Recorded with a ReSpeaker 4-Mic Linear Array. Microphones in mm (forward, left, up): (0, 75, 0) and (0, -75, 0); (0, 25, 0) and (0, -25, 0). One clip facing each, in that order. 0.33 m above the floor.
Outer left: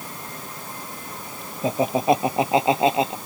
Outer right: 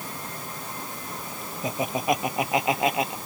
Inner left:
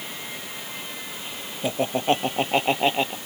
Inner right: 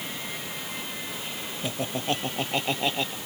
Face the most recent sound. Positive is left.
turn(degrees=25)  # may be behind; listen again after turning